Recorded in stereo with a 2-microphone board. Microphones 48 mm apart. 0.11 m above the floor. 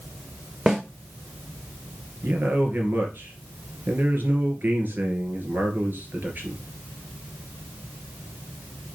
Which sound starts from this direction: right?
A man speaking, at 2.2 s.